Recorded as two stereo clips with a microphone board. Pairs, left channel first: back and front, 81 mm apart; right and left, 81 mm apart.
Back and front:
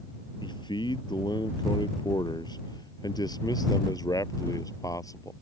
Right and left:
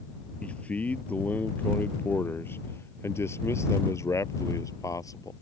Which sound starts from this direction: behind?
A man speaking, at 0.4 s.